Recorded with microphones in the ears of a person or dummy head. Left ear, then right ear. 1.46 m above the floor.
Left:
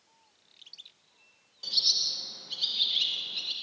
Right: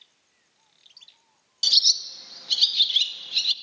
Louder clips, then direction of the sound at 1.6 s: Right 7 dB; 65° right (ahead or behind).